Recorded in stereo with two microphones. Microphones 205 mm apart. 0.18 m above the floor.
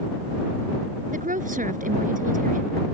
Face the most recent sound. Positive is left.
turn(degrees=-40)  # may be behind; listen again after turning